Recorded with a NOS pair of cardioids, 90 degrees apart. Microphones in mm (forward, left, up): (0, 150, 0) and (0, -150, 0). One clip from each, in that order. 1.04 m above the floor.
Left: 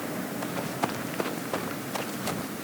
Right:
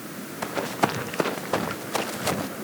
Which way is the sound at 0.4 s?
45° right.